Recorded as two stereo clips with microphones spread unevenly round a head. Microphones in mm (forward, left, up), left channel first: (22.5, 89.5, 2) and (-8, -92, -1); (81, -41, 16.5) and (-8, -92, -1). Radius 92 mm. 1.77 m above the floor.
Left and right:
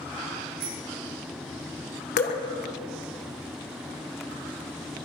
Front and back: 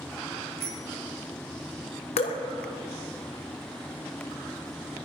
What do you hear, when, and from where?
0.6 s a bicycle bell: 140° right, 6 m
2.2 s dripping: 35° left, 1.5 m